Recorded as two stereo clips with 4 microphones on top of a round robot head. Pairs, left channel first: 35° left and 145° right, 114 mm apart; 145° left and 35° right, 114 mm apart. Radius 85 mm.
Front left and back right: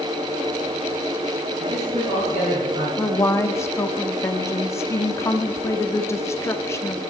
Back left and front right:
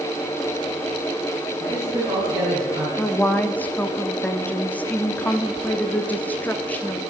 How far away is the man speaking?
About 6 m.